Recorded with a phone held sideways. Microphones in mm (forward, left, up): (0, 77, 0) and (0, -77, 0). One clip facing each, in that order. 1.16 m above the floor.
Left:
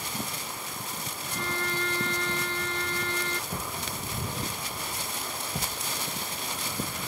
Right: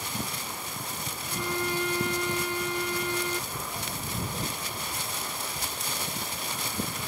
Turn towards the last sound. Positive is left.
turn(degrees=60)  # may be behind; listen again after turning